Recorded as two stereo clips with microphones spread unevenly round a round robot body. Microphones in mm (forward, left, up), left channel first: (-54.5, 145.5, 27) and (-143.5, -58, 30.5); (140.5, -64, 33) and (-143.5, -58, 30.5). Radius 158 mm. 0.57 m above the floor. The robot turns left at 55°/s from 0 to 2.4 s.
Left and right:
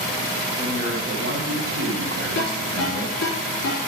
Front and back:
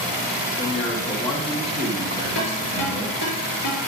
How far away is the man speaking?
About 2.5 m.